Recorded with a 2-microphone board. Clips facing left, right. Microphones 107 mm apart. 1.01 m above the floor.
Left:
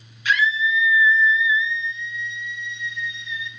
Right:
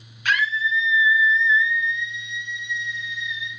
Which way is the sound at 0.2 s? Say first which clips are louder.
Left 2 dB; 55° right (ahead or behind).